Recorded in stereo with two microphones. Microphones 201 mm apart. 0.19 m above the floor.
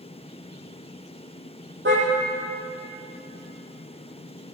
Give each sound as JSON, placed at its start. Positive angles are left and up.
{"t": 1.9, "sound": "a car horn", "side_deg": -75, "distance_m": 4.0}